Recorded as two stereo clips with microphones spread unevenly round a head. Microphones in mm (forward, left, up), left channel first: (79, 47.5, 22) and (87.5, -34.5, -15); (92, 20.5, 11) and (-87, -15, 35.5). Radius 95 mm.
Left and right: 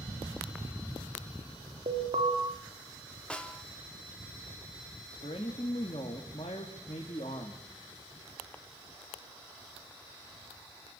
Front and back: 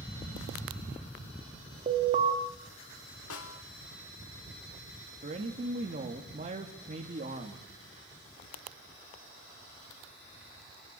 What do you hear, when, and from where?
1.9 s an alarm: 110° right, 3 m
3.3 s a snare drum: 20° left, 2.5 m
5.2 s a man speaking: 140° left, 2 m